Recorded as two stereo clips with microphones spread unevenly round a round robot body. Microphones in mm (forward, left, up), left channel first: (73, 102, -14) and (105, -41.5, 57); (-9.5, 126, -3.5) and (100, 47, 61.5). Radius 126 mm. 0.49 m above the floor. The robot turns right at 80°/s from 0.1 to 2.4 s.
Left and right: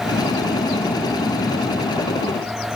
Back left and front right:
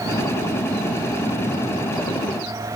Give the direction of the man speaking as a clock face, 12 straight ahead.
I don't hear a man speaking.